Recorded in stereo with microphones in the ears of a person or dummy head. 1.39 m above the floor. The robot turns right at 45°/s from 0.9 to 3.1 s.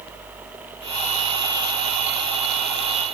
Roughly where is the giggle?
I don't hear a giggle.